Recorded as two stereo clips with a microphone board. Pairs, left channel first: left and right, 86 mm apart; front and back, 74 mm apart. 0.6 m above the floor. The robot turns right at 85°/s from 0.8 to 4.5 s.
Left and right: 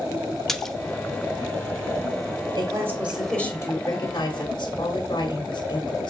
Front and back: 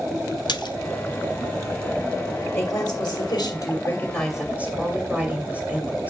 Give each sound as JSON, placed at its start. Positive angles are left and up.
{"t": 0.5, "sound": "a splash", "azimuth_deg": 5, "distance_m": 0.6}
{"t": 2.5, "sound": "a woman speaking", "azimuth_deg": -60, "distance_m": 1.9}